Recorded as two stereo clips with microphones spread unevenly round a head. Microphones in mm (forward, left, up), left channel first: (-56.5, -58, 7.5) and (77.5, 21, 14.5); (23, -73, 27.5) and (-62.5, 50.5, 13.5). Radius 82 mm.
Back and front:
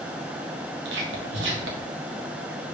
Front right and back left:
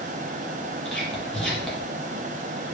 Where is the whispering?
30° left, 2 m.